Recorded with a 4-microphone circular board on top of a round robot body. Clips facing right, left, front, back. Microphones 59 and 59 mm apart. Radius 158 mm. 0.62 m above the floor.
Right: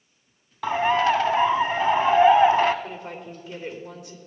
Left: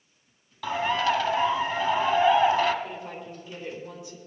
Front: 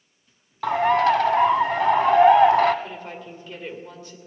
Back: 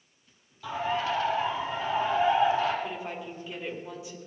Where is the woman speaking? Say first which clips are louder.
Right 1 dB, even; 100° right, 3 m.